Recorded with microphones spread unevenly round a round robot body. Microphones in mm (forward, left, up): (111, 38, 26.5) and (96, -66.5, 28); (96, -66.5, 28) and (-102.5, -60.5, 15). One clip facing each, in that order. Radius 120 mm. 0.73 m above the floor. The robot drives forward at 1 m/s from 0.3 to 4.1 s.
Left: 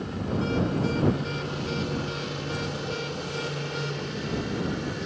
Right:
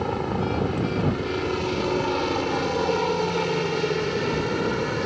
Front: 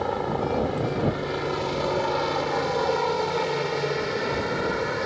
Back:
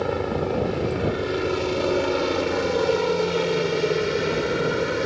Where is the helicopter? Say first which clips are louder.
Right 4 dB, back 2 dB; 125° right; by 5.1 s 135° right.